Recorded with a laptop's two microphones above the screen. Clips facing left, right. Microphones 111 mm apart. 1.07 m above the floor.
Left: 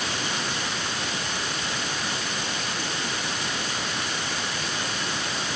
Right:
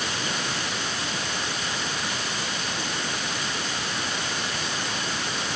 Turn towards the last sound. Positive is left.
No sound to turn to.